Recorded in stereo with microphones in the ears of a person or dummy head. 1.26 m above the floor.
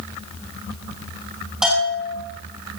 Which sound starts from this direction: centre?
A bell, at 1.6 s.